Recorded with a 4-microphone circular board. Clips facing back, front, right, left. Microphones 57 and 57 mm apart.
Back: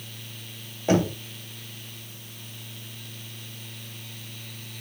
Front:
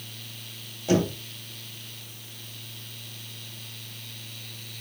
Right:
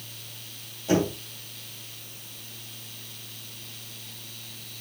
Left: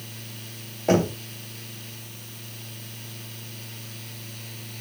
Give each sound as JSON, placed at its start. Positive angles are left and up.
{"t": 0.9, "sound": "knocking", "azimuth_deg": 125, "distance_m": 2.5}